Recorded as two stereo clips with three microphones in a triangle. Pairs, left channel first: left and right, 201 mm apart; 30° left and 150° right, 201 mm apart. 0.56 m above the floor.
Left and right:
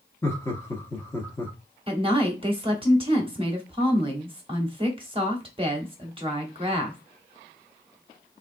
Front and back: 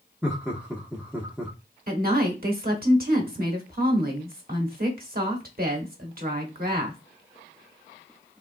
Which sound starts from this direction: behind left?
Laughter, at 0.2 s.